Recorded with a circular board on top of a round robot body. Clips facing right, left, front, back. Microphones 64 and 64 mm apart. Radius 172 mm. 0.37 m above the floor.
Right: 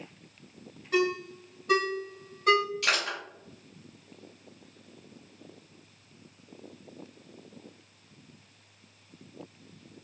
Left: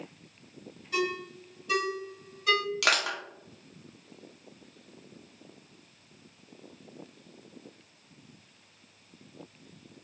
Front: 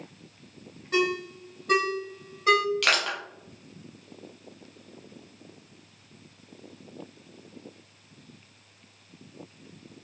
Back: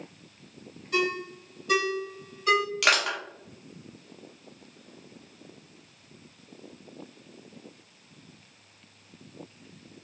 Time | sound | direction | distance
0.9 | a ringtone | 45° right | 1.4 m
2.8 | crushing | 95° left | 0.9 m